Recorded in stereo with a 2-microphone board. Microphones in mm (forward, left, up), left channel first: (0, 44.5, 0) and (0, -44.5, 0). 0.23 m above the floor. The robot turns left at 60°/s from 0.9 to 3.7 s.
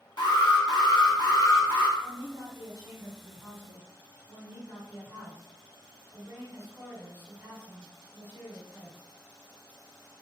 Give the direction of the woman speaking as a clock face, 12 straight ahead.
1 o'clock.